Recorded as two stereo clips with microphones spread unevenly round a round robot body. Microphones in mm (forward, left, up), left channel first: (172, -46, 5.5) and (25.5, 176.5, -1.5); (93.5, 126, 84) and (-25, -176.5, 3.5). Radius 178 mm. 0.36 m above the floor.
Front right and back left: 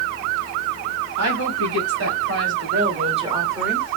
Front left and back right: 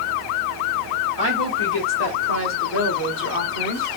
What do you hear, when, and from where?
1.2 s a woman speaking: 130° left, 3 m; by 4.0 s 15° left, 1.4 m